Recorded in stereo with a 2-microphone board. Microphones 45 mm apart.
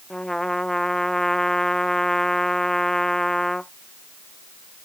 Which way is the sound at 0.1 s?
10° left (ahead or behind).